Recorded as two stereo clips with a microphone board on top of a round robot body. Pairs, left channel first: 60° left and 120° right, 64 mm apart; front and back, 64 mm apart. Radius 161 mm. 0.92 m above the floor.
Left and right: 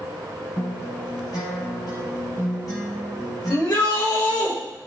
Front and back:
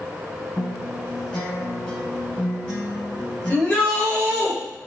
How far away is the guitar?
About 0.8 m.